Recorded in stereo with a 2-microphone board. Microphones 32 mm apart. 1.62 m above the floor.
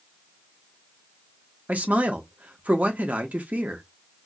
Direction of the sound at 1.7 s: 55° right (ahead or behind).